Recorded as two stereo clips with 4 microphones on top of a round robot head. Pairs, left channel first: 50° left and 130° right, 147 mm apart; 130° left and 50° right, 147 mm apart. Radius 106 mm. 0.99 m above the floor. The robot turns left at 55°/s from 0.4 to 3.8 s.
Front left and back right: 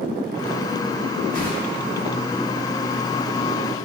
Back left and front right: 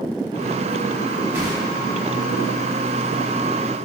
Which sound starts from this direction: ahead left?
A whoosh, at 1.3 s.